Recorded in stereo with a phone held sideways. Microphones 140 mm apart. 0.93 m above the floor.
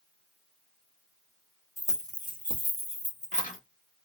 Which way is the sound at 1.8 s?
20° left (ahead or behind).